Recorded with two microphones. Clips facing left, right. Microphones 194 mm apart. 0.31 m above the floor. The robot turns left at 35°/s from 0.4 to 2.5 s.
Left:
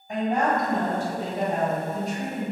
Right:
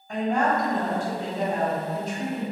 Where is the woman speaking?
155° left, 1.4 m; by 2.4 s 85° left, 1.4 m.